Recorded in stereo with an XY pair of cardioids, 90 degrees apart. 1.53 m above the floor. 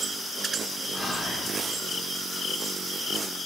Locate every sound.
0.9 s whispering: 50° left, 2.5 m